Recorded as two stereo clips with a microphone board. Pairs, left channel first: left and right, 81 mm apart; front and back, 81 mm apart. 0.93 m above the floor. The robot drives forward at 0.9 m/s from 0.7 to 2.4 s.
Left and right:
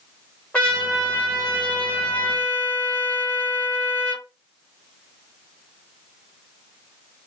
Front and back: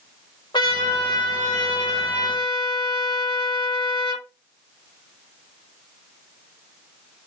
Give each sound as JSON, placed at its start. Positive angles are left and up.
{"t": 0.5, "sound": "a trumpet", "azimuth_deg": 15, "distance_m": 4.0}